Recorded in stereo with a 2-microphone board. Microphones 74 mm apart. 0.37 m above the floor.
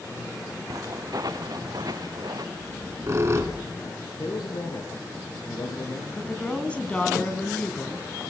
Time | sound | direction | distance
0.7 | footsteps | 55° right (ahead or behind) | 1.6 m
2.5 | a squeak | 40° right (ahead or behind) | 3 m
4.2 | a man speaking | 60° left (ahead or behind) | 6 m
6.2 | a woman speaking | 15° left (ahead or behind) | 3 m